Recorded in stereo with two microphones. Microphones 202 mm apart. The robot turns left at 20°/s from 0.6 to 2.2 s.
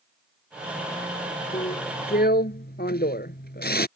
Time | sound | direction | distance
1.5 | a drill | 40° left (ahead or behind) | ?